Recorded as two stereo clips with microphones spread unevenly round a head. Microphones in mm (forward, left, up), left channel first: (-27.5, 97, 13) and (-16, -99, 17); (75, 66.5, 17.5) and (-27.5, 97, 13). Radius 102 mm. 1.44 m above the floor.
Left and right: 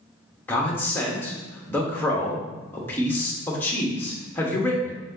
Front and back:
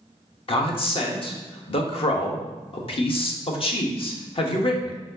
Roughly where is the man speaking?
Ahead.